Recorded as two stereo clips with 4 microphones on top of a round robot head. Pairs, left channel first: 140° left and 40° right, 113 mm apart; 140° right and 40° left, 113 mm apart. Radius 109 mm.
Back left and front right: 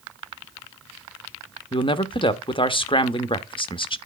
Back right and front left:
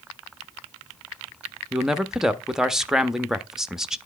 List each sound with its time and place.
1.7 s a man speaking: 125° left, 0.7 m